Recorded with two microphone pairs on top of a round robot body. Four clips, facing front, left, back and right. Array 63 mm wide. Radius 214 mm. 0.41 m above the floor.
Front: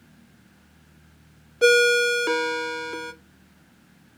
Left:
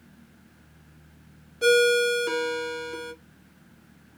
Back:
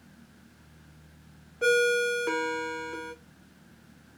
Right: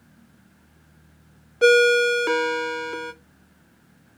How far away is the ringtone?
About 0.8 m.